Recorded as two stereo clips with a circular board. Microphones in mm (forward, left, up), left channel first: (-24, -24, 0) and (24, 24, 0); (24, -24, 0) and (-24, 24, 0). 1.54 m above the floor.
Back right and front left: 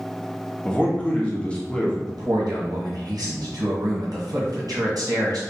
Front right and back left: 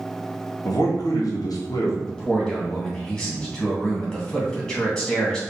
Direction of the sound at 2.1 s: 35° left.